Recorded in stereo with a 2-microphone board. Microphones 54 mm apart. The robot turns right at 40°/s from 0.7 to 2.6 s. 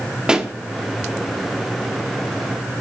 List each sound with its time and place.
0.3 s a pop: 15° right (ahead or behind), 0.9 m